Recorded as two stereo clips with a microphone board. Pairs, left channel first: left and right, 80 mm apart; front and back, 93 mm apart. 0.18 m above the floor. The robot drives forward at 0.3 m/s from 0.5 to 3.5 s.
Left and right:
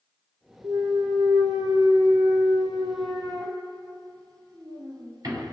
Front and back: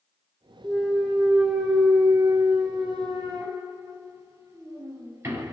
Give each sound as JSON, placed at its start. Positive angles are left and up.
{"t": 0.6, "sound": "a clunk", "azimuth_deg": -85, "distance_m": 1.5}